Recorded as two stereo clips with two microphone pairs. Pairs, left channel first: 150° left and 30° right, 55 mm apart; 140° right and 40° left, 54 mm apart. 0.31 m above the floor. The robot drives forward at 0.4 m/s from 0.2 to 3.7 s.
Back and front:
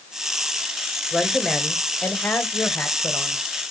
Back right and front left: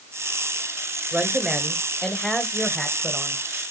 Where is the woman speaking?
70° left, 1.0 m; by 3.4 s 155° left, 1.2 m.